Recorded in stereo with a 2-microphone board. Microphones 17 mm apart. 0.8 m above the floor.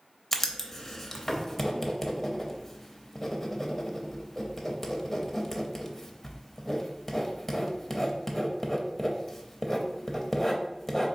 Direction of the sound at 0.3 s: 15° left (ahead or behind).